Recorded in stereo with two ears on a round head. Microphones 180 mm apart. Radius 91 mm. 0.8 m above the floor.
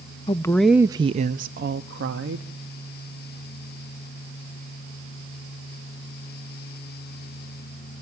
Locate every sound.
0.3 s a woman speaking: 25° left (ahead or behind), 0.5 m; by 2.5 s 65° right (ahead or behind), 1.1 m